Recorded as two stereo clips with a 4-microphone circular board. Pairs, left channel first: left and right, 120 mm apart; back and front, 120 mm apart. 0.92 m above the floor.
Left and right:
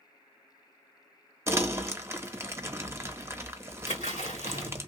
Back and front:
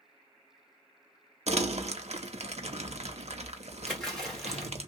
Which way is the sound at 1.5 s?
25° right.